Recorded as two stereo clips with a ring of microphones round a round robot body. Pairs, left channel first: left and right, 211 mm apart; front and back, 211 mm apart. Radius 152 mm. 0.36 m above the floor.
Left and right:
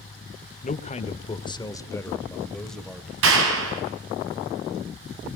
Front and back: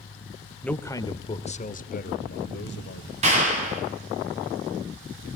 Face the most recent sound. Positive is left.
turn(degrees=-115)